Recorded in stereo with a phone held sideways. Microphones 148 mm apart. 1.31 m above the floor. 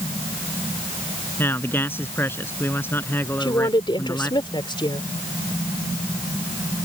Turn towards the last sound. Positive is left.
turn(degrees=30)  # may be behind; listen again after turning